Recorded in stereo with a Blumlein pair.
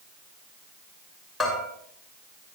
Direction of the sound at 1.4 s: 5° left.